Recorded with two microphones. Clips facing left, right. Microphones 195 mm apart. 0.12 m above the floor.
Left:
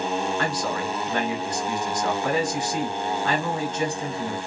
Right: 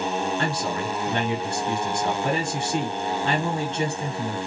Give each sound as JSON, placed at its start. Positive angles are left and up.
{"t": 0.4, "sound": "a man speaking", "side_deg": -25, "distance_m": 1.9}